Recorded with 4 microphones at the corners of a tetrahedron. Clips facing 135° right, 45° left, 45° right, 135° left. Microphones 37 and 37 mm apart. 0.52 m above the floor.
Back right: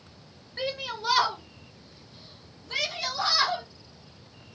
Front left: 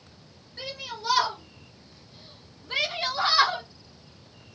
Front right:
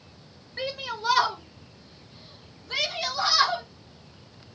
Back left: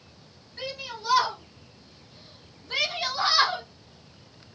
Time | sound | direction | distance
0.6 | a shout | 85° right | 1.3 m